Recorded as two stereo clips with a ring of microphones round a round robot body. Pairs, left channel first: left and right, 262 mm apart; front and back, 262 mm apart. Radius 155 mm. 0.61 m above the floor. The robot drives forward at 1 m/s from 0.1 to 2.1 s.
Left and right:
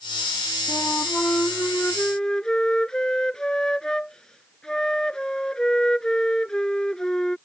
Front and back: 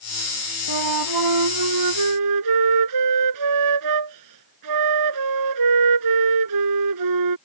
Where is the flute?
170° left; by 7.4 s straight behind.